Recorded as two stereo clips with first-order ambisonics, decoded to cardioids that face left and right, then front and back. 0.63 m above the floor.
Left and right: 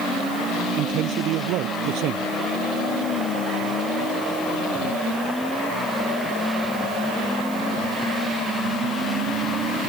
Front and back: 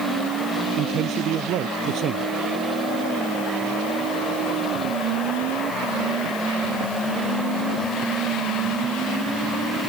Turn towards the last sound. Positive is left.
turn(degrees=-130)